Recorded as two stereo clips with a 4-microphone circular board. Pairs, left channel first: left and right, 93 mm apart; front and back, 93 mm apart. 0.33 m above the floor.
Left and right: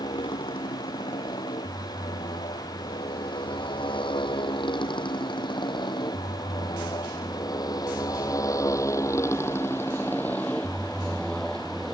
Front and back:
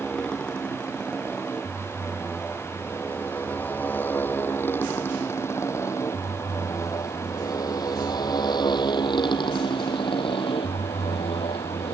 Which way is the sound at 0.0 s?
80° left.